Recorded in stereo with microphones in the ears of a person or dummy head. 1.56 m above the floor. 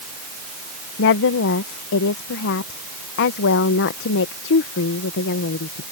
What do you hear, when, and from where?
1.0 s a woman speaking: 55° left (ahead or behind)